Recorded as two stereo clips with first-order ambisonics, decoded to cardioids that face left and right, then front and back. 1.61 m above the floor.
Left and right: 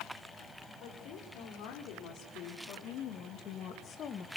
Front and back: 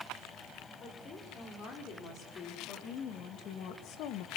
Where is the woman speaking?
60° left, 6 m; by 4.3 s 25° left, 1.7 m.